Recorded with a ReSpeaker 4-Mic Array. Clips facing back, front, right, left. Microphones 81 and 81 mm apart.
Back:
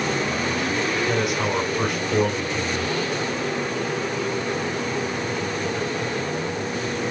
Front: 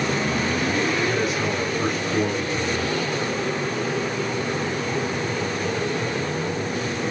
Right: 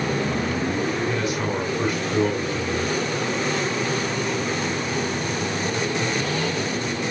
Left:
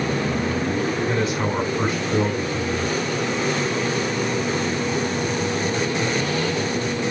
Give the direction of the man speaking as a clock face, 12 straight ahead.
7 o'clock.